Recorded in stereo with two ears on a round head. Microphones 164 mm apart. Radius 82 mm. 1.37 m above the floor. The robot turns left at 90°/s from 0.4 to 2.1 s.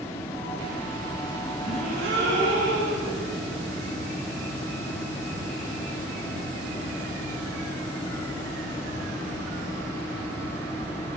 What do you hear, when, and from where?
1.6 s a gasp: 25° right, 10 m; by 3.2 s 70° right, 10 m